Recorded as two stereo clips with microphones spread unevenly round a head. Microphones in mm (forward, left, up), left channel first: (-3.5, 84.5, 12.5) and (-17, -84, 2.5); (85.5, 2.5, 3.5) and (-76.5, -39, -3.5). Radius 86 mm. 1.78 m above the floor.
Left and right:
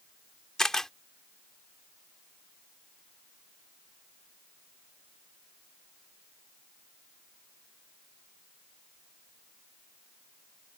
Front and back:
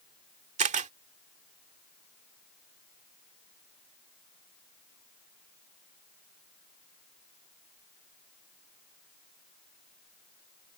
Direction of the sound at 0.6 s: 165° left.